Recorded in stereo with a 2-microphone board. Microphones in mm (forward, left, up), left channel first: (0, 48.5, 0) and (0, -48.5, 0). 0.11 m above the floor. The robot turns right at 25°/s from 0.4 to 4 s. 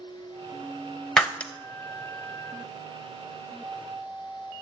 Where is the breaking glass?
5° left (ahead or behind), 1.0 m; by 1.5 s 15° left (ahead or behind), 1.0 m.